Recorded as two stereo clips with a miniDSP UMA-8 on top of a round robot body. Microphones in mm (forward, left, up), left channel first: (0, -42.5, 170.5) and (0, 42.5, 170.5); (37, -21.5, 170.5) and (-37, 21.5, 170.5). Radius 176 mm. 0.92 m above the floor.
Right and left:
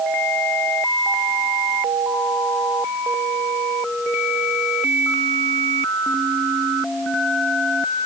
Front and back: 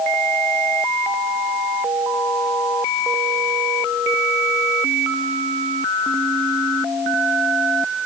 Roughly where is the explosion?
I don't hear an explosion.